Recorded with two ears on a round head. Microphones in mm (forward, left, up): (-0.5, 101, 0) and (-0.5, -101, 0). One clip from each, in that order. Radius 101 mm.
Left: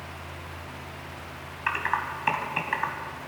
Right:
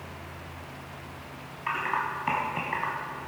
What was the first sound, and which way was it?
Typing on a keyboard, 50° left (ahead or behind).